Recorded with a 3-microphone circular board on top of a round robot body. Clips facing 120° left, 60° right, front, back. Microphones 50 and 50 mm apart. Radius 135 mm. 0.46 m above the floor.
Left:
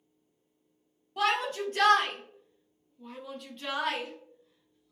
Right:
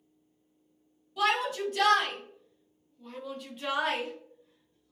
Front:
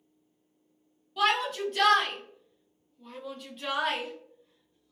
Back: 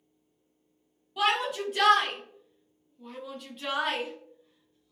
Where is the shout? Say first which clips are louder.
Right 1 dB, even; 100° left, 1.5 m; by 4.9 s 85° right, 1.2 m.